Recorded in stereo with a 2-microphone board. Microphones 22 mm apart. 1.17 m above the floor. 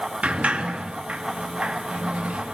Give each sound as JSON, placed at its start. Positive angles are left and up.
{"t": 0.2, "sound": "a sliding door", "side_deg": -80, "distance_m": 1.6}